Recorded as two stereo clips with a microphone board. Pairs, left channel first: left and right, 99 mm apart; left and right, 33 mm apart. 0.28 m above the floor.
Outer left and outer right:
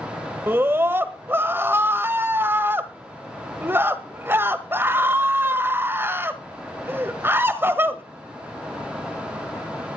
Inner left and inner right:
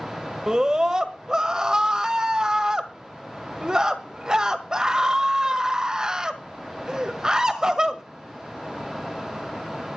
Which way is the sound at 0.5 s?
25° right (ahead or behind).